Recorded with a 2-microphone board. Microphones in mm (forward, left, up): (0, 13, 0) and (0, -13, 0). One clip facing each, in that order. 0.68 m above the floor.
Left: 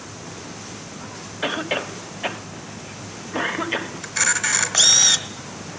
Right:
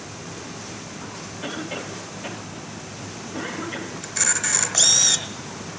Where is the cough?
50° left (ahead or behind), 1.1 m.